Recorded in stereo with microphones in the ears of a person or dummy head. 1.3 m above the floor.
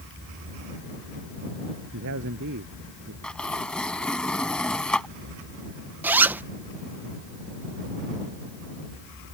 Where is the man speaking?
65° right (ahead or behind).